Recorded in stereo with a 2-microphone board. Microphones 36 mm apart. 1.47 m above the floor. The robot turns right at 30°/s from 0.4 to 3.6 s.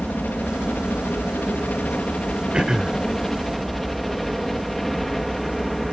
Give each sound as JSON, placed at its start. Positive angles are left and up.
{"t": 0.0, "sound": "a helicopter", "azimuth_deg": 75}
{"t": 2.5, "sound": "throat clearing", "side_deg": -25}